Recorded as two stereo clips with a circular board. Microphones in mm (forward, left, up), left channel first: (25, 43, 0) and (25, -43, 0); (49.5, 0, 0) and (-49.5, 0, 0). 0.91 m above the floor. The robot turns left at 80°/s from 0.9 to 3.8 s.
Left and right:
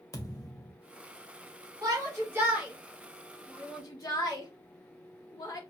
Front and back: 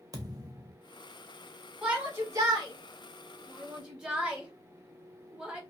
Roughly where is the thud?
Behind left.